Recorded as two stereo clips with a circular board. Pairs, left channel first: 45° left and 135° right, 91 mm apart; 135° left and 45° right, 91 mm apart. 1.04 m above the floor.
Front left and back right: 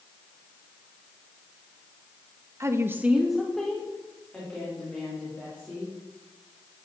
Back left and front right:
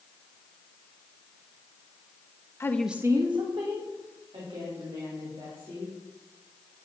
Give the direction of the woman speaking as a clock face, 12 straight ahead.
6 o'clock.